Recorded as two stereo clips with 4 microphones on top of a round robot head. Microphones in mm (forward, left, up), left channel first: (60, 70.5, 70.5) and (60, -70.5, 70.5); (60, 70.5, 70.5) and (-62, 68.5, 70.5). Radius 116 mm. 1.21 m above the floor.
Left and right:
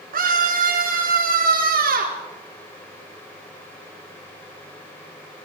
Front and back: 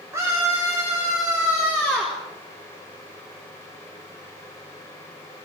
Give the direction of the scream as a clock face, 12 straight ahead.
4 o'clock.